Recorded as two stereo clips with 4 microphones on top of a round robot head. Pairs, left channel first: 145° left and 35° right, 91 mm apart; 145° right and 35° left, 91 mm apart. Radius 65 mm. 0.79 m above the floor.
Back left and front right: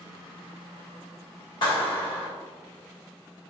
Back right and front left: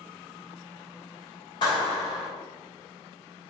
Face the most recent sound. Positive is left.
turn(degrees=175)